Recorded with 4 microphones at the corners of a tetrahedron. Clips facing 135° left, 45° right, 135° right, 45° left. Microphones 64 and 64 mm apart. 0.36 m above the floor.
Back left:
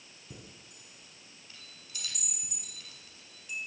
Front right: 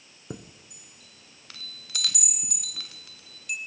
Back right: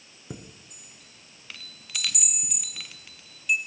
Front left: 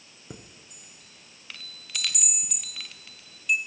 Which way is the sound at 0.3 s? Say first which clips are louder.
Front right 10 dB, back right 3 dB; 45° right.